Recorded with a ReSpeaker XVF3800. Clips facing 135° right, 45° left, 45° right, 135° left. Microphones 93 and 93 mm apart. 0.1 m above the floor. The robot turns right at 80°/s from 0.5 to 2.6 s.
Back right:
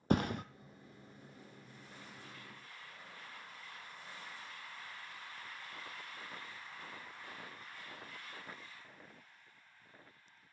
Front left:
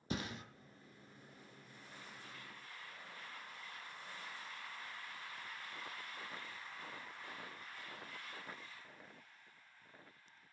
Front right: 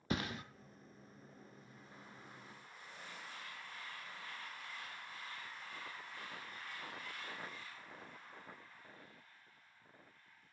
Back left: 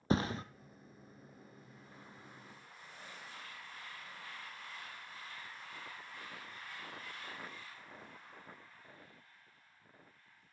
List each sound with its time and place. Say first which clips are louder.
0.1 s a thud: back right 10 dB, back left 7 dB; 170° right, 0.6 m